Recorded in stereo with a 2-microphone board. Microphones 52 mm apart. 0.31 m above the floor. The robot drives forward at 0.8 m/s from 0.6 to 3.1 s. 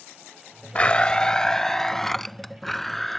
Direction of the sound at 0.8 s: 25° left (ahead or behind).